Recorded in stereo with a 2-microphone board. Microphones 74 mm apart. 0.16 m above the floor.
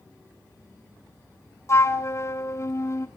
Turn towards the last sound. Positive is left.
turn(degrees=40)  # may be behind; listen again after turning